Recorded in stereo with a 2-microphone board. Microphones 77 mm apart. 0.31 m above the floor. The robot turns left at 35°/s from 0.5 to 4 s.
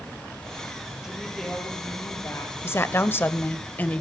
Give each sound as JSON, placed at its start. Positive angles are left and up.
{"t": 1.0, "sound": "a woman speaking", "azimuth_deg": -175, "distance_m": 8.0}
{"t": 2.6, "sound": "a woman speaking", "azimuth_deg": 85, "distance_m": 1.2}